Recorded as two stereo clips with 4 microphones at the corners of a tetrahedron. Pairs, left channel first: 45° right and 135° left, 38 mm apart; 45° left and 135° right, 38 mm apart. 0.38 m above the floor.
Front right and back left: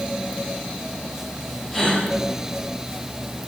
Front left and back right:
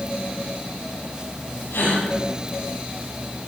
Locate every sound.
1.7 s a gasp: 45° left, 7 m